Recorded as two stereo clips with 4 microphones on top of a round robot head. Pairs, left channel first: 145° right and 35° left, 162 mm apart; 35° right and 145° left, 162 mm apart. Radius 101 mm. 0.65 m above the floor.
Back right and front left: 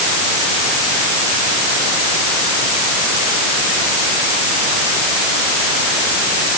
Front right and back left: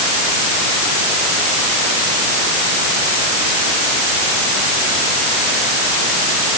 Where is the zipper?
No zipper in this recording.